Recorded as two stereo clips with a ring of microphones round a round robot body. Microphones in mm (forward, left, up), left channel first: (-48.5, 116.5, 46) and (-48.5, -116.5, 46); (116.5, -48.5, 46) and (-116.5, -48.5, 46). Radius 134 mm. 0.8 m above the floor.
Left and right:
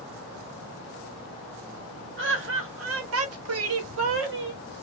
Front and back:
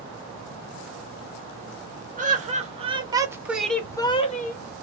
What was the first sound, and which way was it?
Laughter, 125° right.